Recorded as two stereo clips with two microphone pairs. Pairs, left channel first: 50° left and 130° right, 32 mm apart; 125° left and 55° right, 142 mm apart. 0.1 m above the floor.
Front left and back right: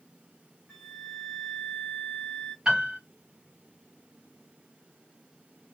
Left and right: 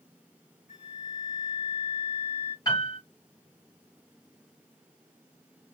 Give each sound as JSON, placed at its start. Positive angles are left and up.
{"t": 0.7, "sound": "a flute", "azimuth_deg": 135, "distance_m": 1.0}
{"t": 2.6, "sound": "a piano", "azimuth_deg": 175, "distance_m": 1.9}